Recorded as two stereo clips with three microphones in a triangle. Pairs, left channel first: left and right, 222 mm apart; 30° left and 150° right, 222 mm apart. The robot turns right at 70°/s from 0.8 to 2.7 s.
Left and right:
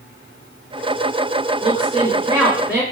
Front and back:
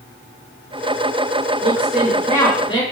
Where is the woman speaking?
90° right, 1.6 m; by 2.8 s 10° right, 1.6 m.